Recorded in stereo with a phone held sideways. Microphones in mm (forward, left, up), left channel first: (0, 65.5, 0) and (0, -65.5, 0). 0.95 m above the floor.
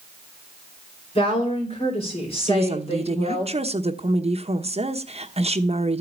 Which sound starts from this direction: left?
A woman speaking, at 1.1 s.